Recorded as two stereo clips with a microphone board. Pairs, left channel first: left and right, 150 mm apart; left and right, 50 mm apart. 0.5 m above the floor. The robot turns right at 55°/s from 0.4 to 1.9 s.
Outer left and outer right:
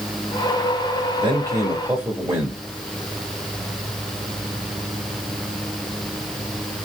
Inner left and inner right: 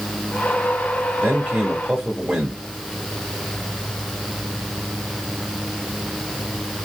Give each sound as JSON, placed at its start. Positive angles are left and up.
{"t": 1.2, "sound": "a man speaking", "azimuth_deg": -55, "distance_m": 1.4}